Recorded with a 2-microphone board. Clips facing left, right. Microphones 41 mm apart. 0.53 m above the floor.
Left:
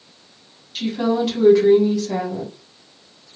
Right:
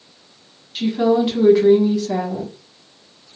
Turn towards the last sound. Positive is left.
turn(degrees=-10)  # may be behind; listen again after turning